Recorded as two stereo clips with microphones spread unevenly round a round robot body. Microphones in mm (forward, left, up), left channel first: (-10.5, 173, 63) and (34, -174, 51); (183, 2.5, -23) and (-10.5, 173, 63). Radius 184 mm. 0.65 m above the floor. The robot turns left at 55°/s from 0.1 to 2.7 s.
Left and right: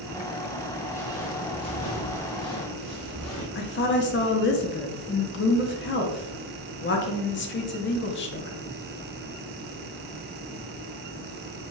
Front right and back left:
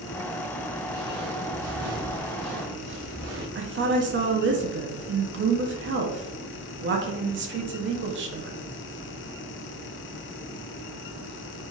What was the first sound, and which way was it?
Footsteps, 175° left.